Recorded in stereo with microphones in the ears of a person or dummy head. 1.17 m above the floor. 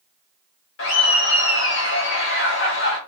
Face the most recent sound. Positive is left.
turn(degrees=65)  # may be behind; listen again after turning